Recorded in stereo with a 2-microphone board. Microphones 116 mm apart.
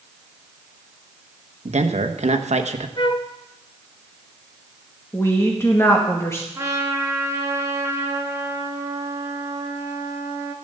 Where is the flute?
45° left (ahead or behind), 0.9 m.